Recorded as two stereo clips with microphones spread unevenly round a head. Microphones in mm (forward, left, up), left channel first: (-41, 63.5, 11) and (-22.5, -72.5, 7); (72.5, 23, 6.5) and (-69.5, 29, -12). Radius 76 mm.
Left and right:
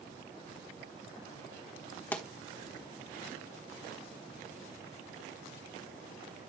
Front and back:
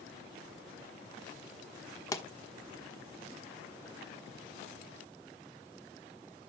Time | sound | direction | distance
2.1 | a pop | 30° left | 1.2 m